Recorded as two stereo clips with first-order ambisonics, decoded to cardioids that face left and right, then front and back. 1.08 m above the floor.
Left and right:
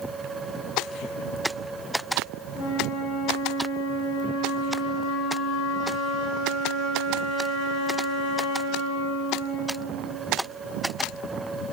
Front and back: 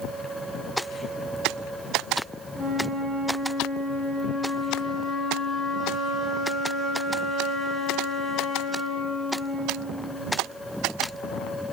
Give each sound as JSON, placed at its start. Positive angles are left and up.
{"t": 2.5, "sound": "a flute", "azimuth_deg": 85, "distance_m": 1.6}